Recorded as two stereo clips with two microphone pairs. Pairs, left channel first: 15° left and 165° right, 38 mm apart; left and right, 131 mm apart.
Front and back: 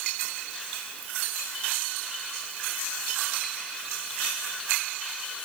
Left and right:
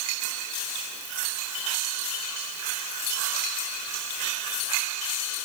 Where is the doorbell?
No doorbell in this recording.